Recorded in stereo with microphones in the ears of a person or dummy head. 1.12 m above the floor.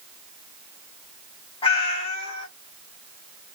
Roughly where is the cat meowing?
Left.